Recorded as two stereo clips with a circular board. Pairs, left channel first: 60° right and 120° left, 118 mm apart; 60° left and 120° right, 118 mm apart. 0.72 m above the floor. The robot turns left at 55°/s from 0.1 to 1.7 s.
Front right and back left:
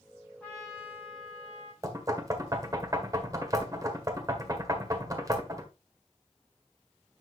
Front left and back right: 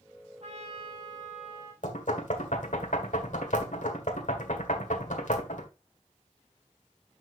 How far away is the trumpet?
About 5.5 m.